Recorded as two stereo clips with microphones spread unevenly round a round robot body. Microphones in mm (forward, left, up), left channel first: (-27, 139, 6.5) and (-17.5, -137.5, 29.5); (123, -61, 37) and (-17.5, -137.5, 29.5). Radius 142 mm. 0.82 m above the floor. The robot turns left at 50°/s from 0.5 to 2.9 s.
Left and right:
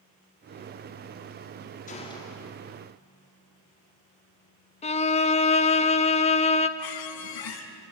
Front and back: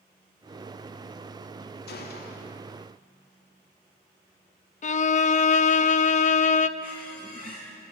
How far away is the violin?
About 0.6 m.